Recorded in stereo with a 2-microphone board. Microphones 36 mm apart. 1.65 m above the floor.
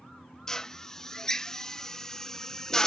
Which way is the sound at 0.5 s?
20° left (ahead or behind).